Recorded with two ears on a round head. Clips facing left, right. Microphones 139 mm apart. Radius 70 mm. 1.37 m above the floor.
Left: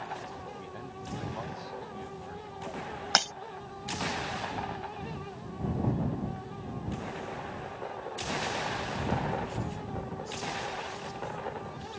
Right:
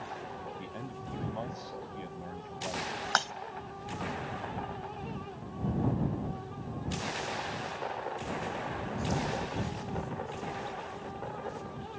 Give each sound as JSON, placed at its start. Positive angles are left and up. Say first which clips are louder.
{"t": 0.6, "sound": "a man speaking", "louder": "even", "side_deg": -25}
{"t": 3.1, "sound": "breaking glass", "louder": "left 2 dB", "side_deg": 25}